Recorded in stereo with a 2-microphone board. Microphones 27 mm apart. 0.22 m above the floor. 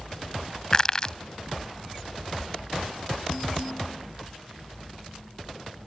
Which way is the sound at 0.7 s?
30° left (ahead or behind).